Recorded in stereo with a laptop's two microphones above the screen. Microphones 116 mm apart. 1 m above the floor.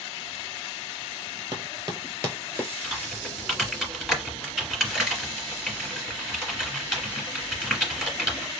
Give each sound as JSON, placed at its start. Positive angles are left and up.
{"t": 1.5, "sound": "running footsteps", "side_deg": -40, "distance_m": 1.3}
{"t": 2.8, "sound": "typing on a keyboard", "side_deg": 0, "distance_m": 1.7}